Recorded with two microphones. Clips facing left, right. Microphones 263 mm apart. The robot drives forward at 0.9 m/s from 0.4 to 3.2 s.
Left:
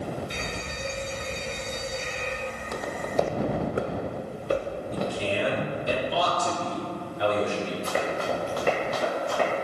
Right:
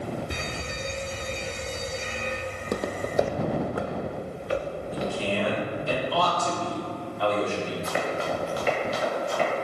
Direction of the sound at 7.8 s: 35° left (ahead or behind).